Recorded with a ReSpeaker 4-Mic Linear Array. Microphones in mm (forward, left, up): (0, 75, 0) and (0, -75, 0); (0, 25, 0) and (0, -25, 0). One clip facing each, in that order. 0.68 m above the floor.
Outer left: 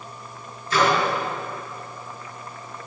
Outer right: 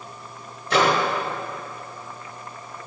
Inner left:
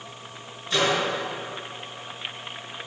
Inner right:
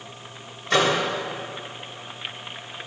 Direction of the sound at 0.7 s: 65° right (ahead or behind).